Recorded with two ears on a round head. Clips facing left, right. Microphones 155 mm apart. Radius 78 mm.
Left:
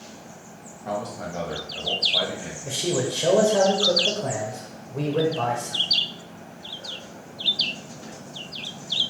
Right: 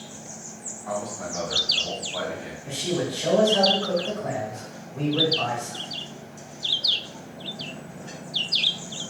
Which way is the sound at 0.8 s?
40° left (ahead or behind).